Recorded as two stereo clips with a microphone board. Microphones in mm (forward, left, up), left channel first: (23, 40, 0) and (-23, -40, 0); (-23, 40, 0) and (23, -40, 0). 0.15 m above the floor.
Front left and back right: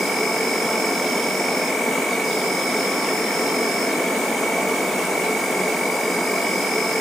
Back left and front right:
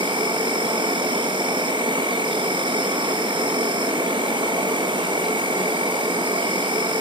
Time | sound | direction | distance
0.0 | an insect | 30° right | 0.8 m